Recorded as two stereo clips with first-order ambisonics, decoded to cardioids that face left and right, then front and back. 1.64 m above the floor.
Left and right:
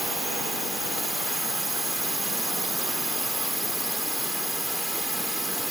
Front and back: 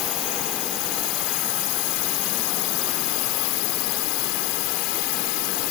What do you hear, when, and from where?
0.0 s a drone: straight ahead